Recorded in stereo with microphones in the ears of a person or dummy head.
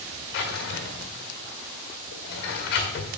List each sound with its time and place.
0.3 s a drawer: 45° left (ahead or behind), 1.6 m